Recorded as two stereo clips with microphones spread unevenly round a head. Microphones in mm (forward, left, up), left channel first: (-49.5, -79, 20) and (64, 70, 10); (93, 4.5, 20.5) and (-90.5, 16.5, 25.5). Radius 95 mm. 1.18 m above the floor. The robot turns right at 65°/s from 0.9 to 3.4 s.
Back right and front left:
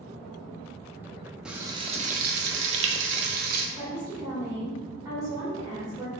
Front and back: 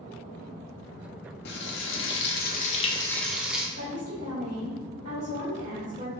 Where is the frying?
35° right, 0.6 m; by 3.7 s 90° left, 0.6 m.